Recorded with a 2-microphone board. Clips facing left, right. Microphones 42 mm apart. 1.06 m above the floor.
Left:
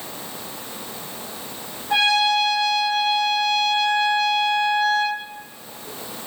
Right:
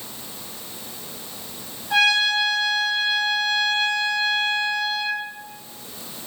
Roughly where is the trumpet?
Centre.